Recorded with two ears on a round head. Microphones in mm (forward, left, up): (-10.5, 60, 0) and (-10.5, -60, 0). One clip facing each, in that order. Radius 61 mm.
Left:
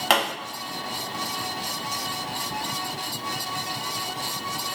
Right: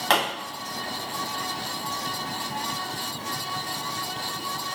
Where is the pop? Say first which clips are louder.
Left 1 dB; 10° left (ahead or behind), 1.2 m.